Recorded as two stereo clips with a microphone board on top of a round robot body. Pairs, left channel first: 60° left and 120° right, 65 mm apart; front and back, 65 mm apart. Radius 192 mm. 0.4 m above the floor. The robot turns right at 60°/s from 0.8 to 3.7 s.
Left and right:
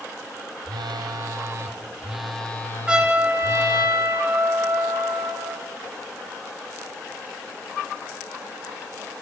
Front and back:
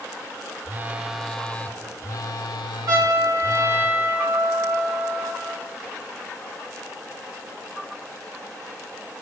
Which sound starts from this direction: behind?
A trumpet, at 2.9 s.